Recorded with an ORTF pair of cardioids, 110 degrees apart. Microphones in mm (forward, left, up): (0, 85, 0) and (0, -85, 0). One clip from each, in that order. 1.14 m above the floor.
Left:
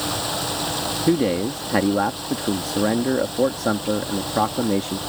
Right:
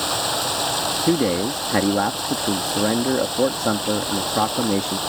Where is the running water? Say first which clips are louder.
Right 3 dB; 45° right.